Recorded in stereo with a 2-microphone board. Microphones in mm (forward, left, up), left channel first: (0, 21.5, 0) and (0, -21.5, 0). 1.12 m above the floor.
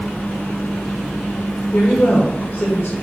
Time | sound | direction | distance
1.7 | a woman speaking | 50° left (ahead or behind) | 1.0 m